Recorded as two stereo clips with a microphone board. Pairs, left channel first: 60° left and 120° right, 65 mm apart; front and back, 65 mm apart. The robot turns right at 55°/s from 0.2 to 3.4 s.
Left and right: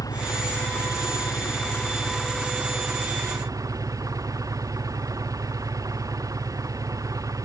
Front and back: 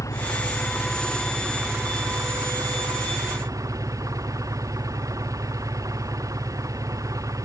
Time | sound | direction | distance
0.0 | an engine running | 35° left | ?